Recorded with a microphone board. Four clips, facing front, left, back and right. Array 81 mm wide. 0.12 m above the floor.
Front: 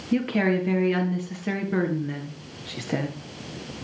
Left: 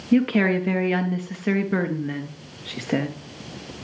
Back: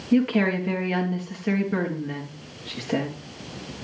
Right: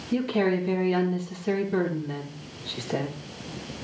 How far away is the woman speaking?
About 2 m.